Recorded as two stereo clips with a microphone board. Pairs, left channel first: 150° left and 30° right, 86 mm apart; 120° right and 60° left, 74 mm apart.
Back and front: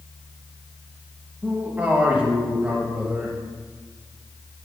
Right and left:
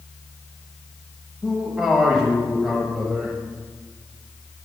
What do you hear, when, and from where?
1.4 s a man speaking: 5° right, 0.9 m